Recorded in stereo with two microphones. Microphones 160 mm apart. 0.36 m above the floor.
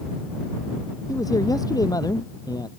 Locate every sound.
1.1 s a man speaking: 20° left (ahead or behind); by 2.7 s 25° left (ahead or behind)